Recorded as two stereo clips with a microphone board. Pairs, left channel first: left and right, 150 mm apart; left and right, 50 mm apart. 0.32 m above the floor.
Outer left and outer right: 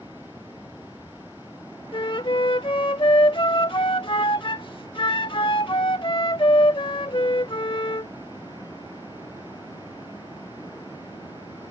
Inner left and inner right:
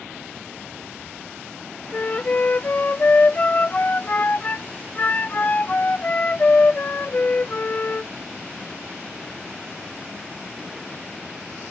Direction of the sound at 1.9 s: 35° left (ahead or behind).